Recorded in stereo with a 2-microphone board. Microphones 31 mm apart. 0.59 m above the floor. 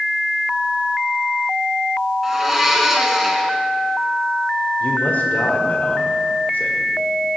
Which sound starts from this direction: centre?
A blender, at 2.2 s.